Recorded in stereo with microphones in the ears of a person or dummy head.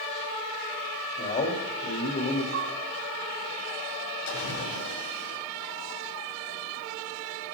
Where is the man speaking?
40° left (ahead or behind), 3 m.